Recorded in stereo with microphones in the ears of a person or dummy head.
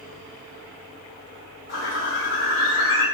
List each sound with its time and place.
1.7 s a bird: 35° left (ahead or behind), 1.3 m